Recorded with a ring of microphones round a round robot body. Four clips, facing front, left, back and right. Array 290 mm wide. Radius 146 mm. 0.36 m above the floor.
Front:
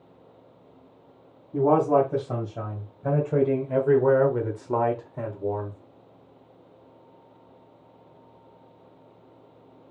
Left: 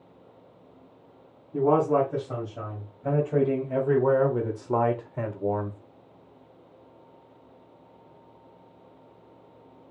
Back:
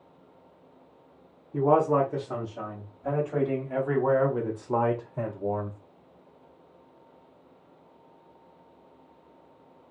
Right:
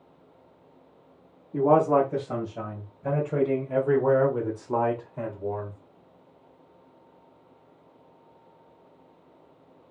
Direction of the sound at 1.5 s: 30° right.